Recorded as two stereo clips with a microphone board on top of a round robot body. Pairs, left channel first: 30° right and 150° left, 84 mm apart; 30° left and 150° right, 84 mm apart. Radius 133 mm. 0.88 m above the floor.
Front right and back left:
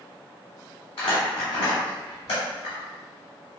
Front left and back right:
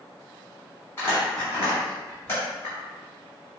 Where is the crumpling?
35° right, 1.2 m.